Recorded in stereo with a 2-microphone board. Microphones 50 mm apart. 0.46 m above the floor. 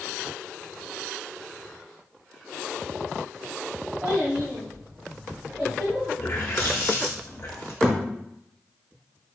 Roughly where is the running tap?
Left.